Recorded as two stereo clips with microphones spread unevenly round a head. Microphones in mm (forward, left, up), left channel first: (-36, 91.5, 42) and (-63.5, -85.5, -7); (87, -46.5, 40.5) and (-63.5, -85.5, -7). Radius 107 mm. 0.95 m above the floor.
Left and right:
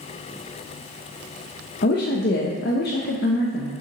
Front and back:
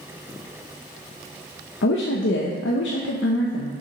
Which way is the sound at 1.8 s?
35° left.